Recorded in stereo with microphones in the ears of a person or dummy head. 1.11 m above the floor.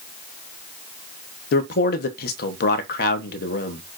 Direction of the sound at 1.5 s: 65° left (ahead or behind).